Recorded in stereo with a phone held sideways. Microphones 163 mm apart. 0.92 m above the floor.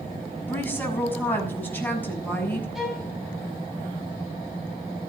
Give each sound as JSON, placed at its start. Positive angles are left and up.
{"t": 0.5, "sound": "a woman speaking", "side_deg": 10, "distance_m": 6.5}
{"t": 2.8, "sound": "a violin", "side_deg": 0, "distance_m": 5.5}